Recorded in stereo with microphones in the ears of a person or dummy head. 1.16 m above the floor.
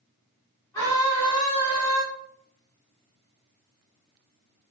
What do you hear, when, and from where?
0.7 s a scream: 15° left (ahead or behind), 1.4 m